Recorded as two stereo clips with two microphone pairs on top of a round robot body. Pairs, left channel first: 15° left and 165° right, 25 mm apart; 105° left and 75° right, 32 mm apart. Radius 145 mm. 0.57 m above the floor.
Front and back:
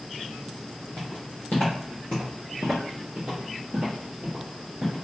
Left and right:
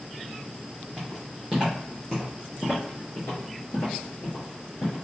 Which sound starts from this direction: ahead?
Footsteps, at 1.0 s.